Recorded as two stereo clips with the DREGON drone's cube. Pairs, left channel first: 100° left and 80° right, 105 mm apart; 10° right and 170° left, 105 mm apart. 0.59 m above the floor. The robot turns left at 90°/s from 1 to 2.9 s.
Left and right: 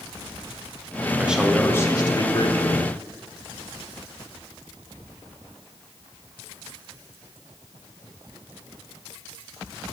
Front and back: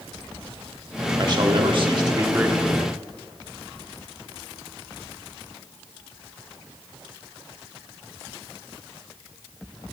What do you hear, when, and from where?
1.2 s a man speaking: 150° right, 1.3 m; by 2.9 s 60° left, 1.3 m